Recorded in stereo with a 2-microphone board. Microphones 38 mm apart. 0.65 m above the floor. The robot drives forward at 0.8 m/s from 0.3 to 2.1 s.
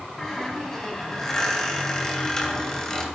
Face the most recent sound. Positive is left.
turn(degrees=15)  # may be behind; listen again after turning